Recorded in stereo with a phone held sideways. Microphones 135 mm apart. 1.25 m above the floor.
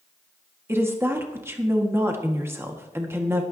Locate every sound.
0.7 s a woman speaking: 20° right (ahead or behind), 1.6 m